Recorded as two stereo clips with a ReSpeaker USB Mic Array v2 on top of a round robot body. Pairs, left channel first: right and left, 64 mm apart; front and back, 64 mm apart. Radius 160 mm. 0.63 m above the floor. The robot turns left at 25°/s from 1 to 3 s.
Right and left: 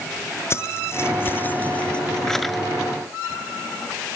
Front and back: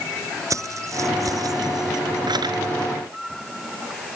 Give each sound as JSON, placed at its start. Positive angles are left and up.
{"t": 0.5, "sound": "keys jangling", "azimuth_deg": -140}